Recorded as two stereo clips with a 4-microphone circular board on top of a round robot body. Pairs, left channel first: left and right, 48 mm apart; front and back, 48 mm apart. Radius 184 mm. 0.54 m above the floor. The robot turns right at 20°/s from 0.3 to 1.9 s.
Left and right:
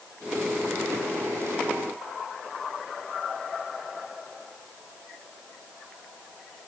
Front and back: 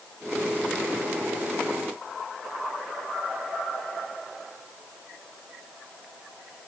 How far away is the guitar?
No guitar in this recording.